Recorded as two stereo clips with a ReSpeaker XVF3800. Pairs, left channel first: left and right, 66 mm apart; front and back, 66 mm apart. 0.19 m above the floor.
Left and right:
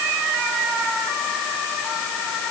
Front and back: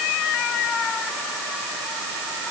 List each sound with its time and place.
Only background noise.